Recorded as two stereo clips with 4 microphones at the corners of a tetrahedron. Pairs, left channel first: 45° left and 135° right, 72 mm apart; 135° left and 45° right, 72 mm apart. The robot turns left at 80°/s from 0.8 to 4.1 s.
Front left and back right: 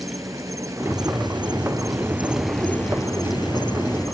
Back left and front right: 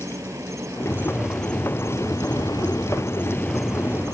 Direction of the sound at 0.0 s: 90° right.